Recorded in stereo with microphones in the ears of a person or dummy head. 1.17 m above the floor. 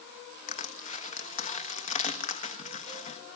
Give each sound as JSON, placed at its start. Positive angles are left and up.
{"t": 0.5, "sound": "crushing", "side_deg": 35, "distance_m": 1.5}